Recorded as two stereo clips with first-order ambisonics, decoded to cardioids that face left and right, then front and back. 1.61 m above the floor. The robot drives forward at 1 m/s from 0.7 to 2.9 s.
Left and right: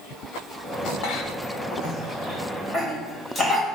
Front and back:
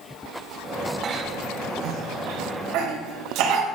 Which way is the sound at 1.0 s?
120° left.